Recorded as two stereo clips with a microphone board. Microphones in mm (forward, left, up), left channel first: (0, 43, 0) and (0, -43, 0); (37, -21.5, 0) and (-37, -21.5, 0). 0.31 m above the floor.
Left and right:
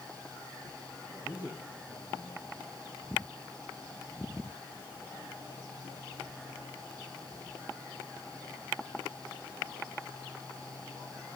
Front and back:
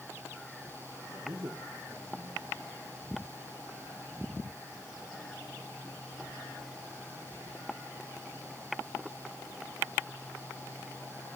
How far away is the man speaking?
About 6.5 m.